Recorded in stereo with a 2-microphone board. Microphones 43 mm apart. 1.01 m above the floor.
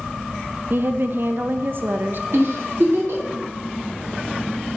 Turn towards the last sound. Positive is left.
turn(degrees=-75)  # may be behind; listen again after turning